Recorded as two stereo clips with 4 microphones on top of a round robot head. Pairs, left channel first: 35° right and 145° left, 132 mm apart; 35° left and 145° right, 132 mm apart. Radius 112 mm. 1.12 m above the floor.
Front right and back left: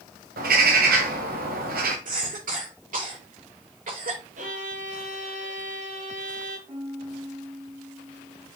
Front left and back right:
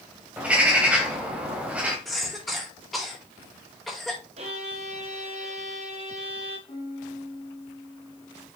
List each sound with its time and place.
0.4 s a bird: 135° left, 1.8 m
2.0 s a cough: 125° left, 5 m
4.4 s a violin: 175° left, 1.3 m
6.7 s a piano: 90° left, 4 m